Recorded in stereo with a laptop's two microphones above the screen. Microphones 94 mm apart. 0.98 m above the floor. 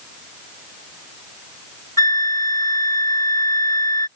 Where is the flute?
40° left (ahead or behind).